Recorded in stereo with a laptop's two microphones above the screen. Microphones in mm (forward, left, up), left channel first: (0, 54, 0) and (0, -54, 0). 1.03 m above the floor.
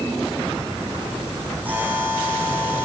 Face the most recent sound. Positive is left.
turn(degrees=-15)  # may be behind; listen again after turning